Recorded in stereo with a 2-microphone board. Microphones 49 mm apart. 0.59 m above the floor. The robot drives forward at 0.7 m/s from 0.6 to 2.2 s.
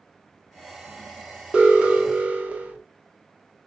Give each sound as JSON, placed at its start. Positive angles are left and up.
{"t": 1.5, "sound": "an alarm", "side_deg": -25, "distance_m": 1.2}